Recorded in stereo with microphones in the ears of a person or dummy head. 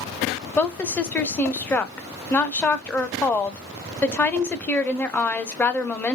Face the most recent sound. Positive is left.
turn(degrees=10)  # may be behind; listen again after turning